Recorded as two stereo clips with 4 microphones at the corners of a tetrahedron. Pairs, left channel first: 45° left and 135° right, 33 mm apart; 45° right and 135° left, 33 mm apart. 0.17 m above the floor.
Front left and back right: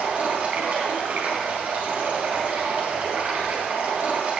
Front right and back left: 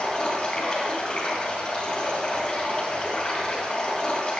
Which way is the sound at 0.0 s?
90° right.